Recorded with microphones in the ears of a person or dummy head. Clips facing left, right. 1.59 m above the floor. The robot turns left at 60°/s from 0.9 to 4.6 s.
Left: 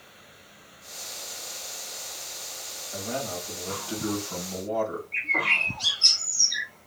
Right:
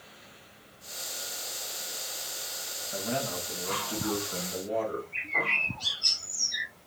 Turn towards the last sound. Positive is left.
turn(degrees=70)  # may be behind; listen again after turning